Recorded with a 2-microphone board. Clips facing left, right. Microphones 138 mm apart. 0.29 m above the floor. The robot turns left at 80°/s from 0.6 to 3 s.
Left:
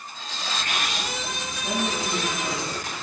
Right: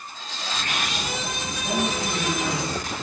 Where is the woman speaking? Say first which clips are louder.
Right 1 dB; 10° left, 9 m; by 3.0 s 100° right, 9 m.